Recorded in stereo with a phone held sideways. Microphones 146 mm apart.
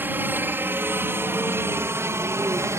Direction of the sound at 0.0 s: 10° right (ahead or behind).